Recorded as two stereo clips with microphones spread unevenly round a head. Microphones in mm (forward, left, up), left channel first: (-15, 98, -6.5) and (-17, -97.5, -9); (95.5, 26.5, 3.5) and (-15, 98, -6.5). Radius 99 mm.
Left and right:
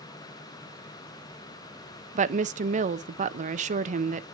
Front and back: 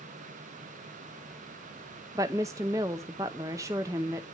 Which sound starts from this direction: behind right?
A woman speaking, at 2.1 s.